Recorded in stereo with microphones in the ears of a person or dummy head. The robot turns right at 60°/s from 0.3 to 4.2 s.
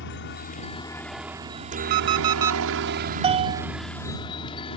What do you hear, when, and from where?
0.0 s a helicopter: 50° left (ahead or behind); by 4.8 s 30° left (ahead or behind)
1.9 s an alarm clock: 25° right (ahead or behind); by 2.6 s 15° right (ahead or behind)
3.2 s a bell: 30° right (ahead or behind); by 3.7 s 55° right (ahead or behind)